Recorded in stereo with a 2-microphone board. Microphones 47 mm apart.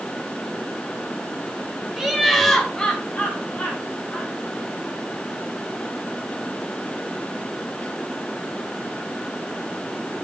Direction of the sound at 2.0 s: 10° right (ahead or behind).